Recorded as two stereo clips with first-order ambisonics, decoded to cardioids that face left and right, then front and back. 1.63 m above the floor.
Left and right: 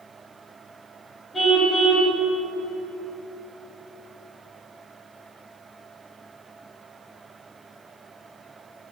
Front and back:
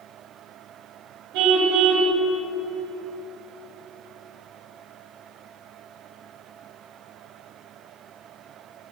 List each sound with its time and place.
1.3 s a car horn: 165° left, 4 m